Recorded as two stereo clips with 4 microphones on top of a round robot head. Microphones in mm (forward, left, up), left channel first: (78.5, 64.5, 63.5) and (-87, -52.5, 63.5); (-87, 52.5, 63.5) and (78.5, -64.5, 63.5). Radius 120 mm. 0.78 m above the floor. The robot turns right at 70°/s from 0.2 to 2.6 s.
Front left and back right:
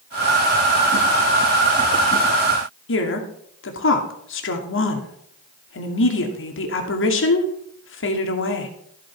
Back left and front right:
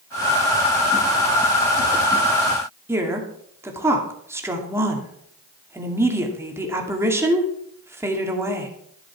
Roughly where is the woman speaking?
Ahead left.